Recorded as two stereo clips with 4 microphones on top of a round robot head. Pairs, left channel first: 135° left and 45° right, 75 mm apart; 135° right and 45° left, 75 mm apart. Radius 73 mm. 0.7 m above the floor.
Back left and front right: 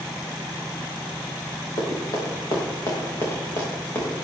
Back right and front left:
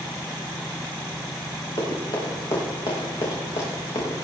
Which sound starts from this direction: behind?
Running footsteps, at 1.8 s.